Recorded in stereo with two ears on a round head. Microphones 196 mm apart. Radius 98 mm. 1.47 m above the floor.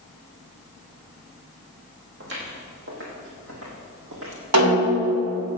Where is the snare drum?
85° right, 4.5 m.